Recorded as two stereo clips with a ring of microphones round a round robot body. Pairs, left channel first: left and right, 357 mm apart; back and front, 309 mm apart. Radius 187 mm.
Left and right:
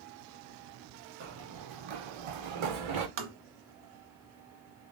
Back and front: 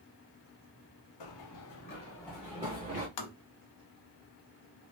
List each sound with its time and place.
1.2 s running footsteps: 150° right, 0.9 m; by 3.1 s 70° right, 1.3 m
3.2 s tapping: 150° right, 0.8 m